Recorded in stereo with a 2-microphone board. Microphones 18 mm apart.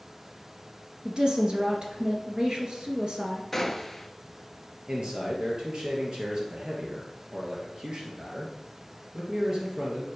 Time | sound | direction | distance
1.1 | a woman speaking | 45° right (ahead or behind) | 1.8 m
3.5 | a gunshot | 10° left (ahead or behind) | 0.7 m
4.9 | a man speaking | 45° right (ahead or behind) | 2.5 m